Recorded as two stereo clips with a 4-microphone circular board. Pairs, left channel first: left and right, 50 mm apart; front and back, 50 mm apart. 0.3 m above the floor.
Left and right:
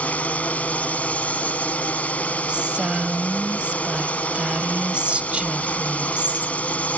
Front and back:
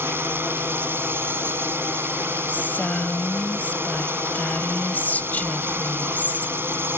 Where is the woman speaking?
35° right.